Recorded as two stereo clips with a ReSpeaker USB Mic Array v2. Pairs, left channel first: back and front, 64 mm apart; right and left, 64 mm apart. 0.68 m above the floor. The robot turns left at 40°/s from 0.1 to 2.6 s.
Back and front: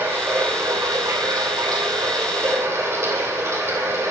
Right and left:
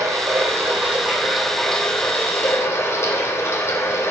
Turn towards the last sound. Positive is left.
turn(degrees=-45)